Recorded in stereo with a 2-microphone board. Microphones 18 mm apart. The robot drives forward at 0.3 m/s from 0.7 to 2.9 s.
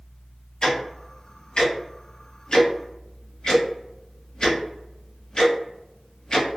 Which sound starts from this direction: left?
Ticking, at 0.6 s.